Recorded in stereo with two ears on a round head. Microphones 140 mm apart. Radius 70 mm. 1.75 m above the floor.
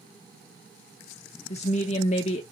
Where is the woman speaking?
40° left (ahead or behind), 0.5 m.